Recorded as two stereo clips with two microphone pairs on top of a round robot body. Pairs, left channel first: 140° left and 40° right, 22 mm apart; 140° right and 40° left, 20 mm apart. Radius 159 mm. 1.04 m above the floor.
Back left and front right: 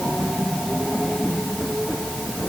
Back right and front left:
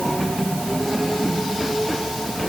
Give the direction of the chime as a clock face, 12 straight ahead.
No chime in this recording.